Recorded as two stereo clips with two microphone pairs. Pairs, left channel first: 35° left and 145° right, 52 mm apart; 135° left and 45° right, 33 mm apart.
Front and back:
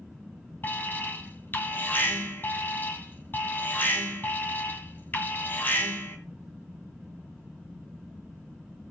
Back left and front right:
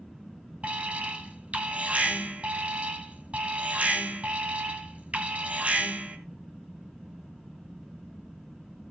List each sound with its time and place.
0.6 s an alarm: 10° right, 1.9 m